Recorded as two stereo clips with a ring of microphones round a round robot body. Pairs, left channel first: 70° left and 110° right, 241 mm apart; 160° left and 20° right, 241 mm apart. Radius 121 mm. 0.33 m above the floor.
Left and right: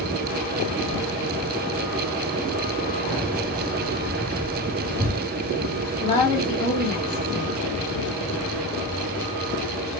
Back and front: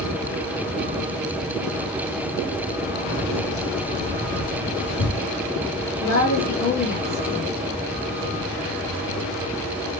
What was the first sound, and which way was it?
Keys jangling, 150° left.